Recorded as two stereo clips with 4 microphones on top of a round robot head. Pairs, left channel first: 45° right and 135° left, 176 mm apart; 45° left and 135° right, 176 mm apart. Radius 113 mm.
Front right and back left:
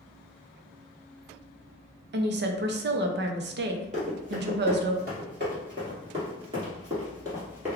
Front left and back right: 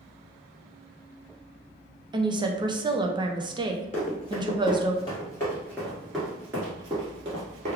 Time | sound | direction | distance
2.1 | a woman speaking | 160° left | 0.6 m
3.9 | running footsteps | 90° left | 2.0 m